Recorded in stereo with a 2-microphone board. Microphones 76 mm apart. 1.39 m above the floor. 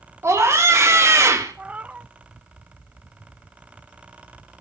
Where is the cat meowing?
20° right (ahead or behind), 0.6 m.